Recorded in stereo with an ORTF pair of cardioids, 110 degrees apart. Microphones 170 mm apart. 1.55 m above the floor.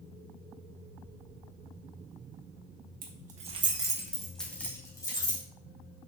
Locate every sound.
3.0 s keys jangling: 55° right, 1.7 m; by 5.4 s 25° left, 3 m